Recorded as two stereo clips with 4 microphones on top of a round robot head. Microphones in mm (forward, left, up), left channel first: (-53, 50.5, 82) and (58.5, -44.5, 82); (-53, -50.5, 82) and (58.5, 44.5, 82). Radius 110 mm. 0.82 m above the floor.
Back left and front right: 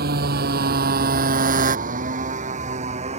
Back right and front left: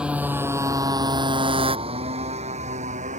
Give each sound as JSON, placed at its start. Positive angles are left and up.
{"t": 0.0, "sound": "a motorcycle", "azimuth_deg": -45}